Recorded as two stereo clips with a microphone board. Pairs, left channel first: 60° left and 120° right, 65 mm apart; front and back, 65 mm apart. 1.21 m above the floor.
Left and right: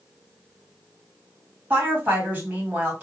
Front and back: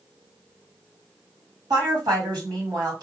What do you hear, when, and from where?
1.7 s a woman speaking: 175° left, 1.9 m